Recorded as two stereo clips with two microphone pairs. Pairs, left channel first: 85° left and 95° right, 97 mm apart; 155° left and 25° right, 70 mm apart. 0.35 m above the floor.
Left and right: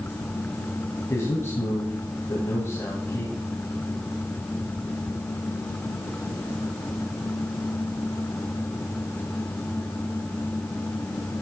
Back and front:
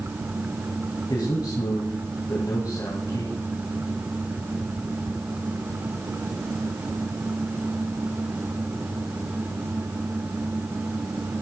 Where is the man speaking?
140° left, 3 m.